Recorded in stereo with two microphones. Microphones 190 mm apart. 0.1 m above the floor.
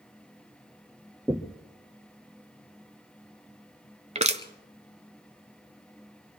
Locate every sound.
1.3 s knocking: 5° right (ahead or behind), 0.9 m
4.2 s crushing: 40° right (ahead or behind), 0.8 m